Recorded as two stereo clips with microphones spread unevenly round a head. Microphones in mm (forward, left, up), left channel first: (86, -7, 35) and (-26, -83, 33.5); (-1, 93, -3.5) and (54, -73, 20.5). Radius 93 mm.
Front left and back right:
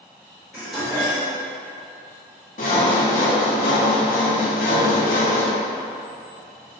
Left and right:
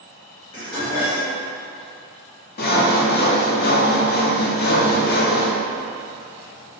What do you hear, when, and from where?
0.5 s dishes clattering: 125° left, 1.9 m
2.6 s sawing: 75° left, 0.6 m